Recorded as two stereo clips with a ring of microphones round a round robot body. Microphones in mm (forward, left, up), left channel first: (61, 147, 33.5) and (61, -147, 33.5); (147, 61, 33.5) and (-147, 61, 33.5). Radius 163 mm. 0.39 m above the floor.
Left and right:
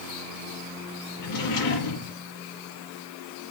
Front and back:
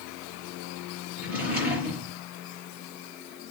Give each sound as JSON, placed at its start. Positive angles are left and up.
{"t": 1.2, "sound": "a drawer", "azimuth_deg": 95, "distance_m": 6.0}